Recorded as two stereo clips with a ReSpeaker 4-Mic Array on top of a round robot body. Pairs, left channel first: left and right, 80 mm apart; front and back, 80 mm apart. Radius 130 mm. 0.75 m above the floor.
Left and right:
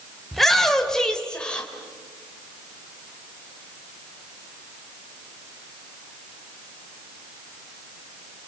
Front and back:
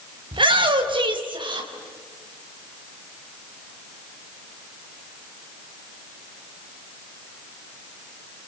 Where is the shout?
175° left, 4.5 m; by 1.7 s 165° left, 4.5 m.